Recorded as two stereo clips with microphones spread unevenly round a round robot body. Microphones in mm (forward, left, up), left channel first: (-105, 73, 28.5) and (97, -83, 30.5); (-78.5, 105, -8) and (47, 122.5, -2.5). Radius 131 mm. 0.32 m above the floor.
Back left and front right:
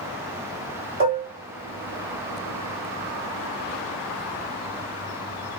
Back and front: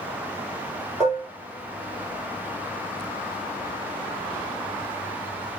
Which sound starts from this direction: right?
Dishes clattering, at 1.0 s.